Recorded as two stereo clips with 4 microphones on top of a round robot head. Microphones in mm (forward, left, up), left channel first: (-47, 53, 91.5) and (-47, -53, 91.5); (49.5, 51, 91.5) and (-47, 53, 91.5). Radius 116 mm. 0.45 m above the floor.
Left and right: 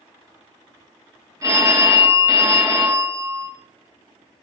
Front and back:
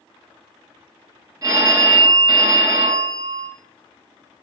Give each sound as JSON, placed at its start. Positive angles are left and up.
{"t": 1.4, "sound": "a phone ringing", "azimuth_deg": -145, "distance_m": 0.8}